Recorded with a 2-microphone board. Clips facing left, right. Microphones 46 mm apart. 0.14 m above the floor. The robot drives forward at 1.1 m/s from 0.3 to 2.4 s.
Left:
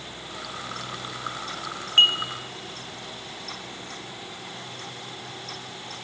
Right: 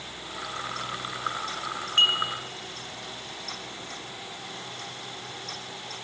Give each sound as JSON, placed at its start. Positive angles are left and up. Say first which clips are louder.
{"t": 2.0, "sound": "dishes clattering", "louder": "left 3 dB", "side_deg": 30, "distance_m": 2.0}